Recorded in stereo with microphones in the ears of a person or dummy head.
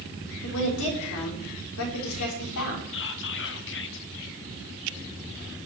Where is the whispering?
65° left (ahead or behind), 1.3 m.